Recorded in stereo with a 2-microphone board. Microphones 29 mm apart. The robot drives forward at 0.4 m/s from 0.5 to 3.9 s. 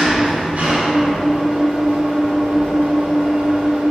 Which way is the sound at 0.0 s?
50° right (ahead or behind).